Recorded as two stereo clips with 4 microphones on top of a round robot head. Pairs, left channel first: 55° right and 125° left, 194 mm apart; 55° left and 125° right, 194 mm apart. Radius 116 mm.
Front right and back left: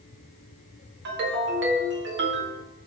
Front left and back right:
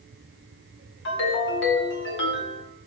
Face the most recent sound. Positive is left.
turn(degrees=90)